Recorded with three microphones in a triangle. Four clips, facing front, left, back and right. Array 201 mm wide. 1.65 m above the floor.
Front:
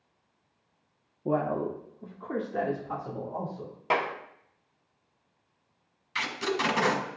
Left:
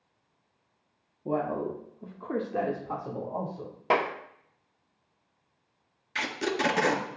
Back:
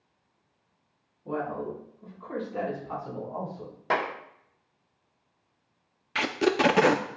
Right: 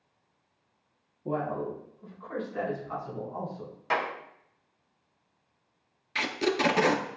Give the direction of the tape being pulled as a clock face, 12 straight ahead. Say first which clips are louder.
Right 2 dB, back 6 dB; 6 o'clock.